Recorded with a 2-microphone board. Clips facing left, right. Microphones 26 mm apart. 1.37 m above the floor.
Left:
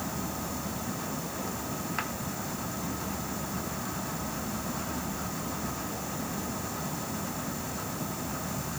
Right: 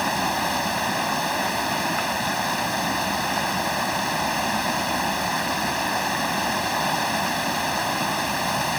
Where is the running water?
75° right (ahead or behind).